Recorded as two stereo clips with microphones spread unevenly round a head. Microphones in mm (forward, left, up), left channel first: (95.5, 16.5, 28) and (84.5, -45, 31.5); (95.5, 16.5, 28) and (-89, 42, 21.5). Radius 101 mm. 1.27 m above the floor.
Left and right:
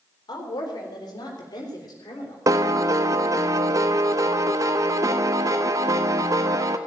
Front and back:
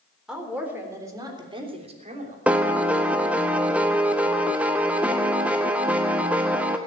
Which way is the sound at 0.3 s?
85° left.